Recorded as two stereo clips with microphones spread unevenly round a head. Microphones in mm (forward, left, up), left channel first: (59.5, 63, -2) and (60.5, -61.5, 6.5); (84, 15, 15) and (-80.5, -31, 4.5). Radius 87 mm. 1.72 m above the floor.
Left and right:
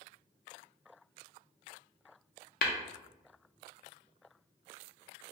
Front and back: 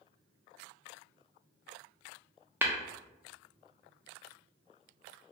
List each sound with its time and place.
2.6 s tapping: 115° left, 0.5 m